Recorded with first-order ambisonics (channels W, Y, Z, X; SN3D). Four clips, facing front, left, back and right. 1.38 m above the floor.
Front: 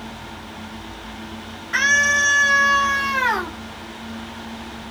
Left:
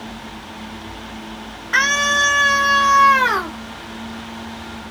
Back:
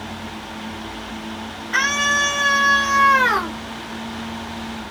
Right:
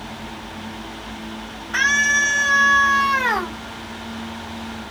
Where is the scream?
100° left, 1.8 m; by 3.6 s 130° left, 2 m.